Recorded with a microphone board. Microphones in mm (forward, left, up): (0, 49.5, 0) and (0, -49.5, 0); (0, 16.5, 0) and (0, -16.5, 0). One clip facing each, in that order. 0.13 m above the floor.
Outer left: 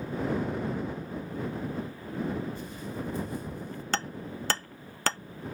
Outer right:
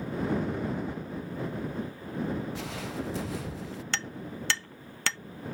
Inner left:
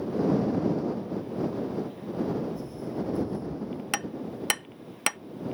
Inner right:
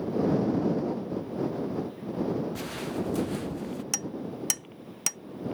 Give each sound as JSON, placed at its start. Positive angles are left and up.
{"t": 2.5, "sound": "footsteps", "side_deg": -80}
{"t": 3.9, "sound": "hammering", "side_deg": 40}